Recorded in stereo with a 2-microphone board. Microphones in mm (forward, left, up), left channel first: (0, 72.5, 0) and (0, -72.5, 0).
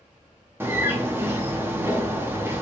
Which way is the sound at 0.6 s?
15° right (ahead or behind).